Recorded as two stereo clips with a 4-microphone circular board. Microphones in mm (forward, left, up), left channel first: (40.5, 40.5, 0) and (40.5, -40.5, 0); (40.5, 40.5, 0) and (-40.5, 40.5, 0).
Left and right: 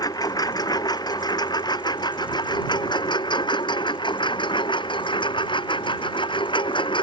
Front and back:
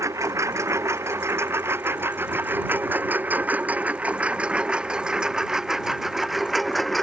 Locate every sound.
0.0 s a lawn mower: 130° left; by 7.0 s 90° left